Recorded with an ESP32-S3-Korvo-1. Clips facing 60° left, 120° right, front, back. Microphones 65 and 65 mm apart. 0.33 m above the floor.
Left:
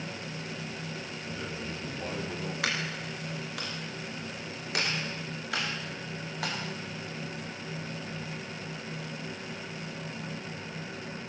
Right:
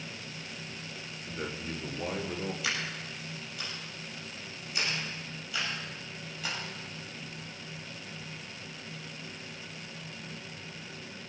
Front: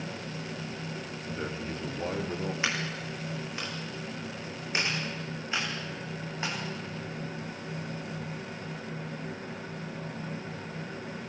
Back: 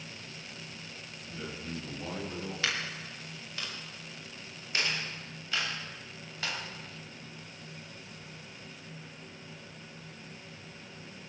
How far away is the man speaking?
About 4.5 m.